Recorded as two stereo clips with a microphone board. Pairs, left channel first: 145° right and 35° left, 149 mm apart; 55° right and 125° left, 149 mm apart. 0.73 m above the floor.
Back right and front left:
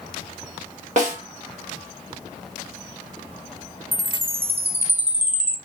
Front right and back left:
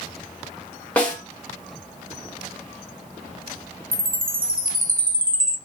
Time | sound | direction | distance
1.0 | a snare drum | 20° left | 1.2 m
3.9 | a chime | 110° left | 0.6 m